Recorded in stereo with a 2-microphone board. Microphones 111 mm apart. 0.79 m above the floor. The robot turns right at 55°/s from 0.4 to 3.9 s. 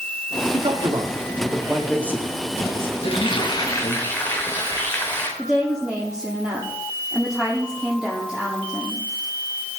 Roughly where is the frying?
Behind left.